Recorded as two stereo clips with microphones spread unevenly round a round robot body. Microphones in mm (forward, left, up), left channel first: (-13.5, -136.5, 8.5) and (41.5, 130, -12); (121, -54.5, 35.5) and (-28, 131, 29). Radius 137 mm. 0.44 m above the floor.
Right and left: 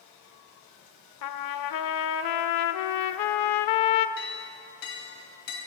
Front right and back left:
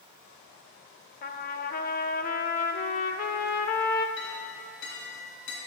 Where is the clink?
100° right, 2.5 m.